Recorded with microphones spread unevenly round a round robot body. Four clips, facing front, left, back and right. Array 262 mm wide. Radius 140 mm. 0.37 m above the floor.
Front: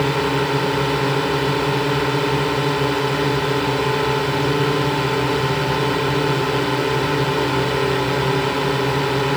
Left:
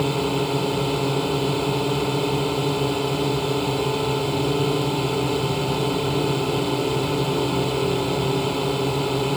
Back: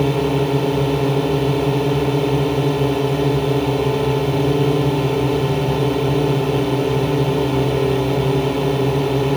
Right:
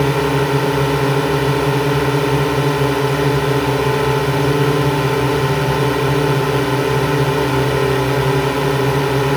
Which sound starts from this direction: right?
A drone, at 0.0 s.